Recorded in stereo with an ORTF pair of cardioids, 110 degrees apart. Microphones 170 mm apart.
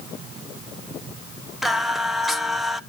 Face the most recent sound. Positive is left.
turn(degrees=0)